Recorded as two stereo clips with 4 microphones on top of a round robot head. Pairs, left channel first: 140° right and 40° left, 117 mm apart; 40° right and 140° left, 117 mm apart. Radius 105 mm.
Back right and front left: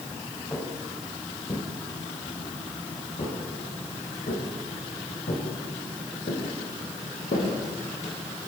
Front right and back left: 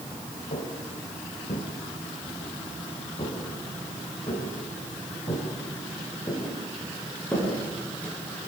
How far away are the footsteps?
About 7 m.